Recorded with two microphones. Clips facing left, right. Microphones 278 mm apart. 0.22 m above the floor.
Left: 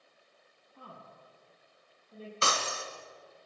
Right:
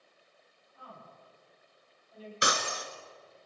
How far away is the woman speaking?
About 8.5 m.